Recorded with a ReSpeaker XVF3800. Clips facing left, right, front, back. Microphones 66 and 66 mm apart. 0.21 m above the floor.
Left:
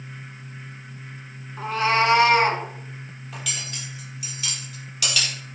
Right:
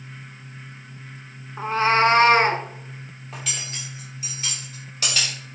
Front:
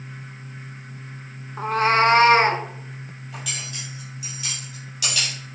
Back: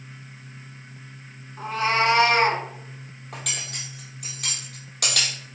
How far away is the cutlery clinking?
About 3 m.